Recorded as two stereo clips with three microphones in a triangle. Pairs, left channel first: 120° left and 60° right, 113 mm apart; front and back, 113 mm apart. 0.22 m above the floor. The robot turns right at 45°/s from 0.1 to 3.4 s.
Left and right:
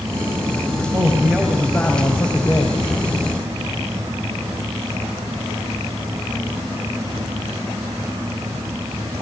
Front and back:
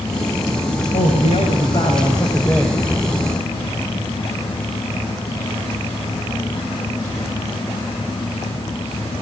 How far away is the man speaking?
About 3.5 m.